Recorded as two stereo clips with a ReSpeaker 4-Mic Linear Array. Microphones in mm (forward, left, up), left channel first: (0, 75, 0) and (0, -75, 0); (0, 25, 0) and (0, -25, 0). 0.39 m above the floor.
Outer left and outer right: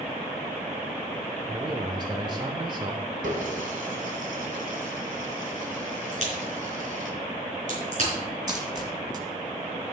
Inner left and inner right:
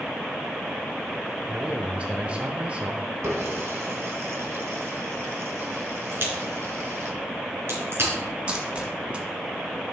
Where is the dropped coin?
25° right (ahead or behind), 1.6 m.